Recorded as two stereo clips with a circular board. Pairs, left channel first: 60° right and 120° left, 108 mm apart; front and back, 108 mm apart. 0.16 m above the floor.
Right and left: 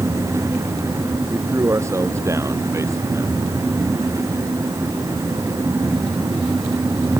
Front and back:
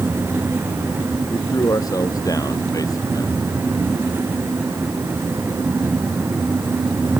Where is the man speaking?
55° left.